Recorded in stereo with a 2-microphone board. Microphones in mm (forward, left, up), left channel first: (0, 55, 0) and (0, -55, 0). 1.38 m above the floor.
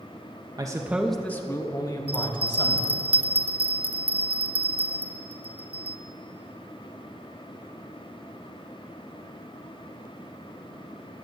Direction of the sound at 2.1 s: 60° right (ahead or behind).